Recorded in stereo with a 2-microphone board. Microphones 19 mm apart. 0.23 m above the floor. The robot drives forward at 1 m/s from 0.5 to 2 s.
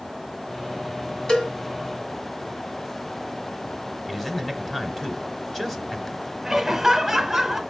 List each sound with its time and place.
1.3 s a cowbell: 45° left (ahead or behind), 2.0 m
4.1 s a man speaking: 15° left (ahead or behind), 1.1 m
6.4 s laughter: 15° right (ahead or behind), 1.3 m